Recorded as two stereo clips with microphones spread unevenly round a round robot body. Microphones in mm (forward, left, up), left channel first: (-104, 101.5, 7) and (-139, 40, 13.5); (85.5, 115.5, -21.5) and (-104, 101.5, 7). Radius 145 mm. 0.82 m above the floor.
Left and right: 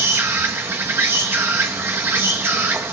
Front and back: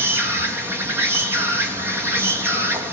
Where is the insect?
90° right, 1.9 m.